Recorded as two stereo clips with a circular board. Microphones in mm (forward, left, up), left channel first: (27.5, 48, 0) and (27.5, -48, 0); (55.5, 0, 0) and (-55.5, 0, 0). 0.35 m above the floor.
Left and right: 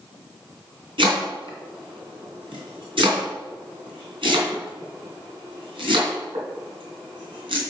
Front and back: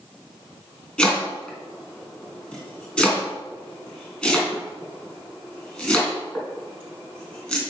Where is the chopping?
80° right, 3 m.